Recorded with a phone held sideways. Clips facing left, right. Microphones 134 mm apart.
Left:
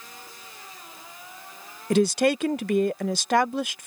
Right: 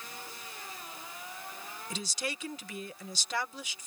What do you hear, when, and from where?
1.9 s a woman speaking: 65° left (ahead or behind)